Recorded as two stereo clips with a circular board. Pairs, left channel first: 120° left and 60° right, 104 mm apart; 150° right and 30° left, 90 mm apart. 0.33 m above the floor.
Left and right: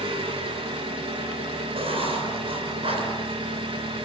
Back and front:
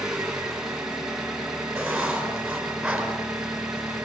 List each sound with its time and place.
0.0 s an engine running: 55° right, 2.5 m
1.8 s writing: 55° right, 4.5 m